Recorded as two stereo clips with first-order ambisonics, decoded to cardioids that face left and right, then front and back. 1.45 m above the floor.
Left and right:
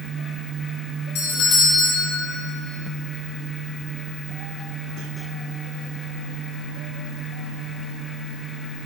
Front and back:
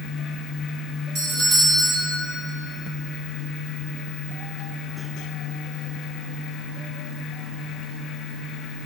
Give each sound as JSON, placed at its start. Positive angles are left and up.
{"t": 1.1, "sound": "a doorbell", "azimuth_deg": 125, "distance_m": 1.5}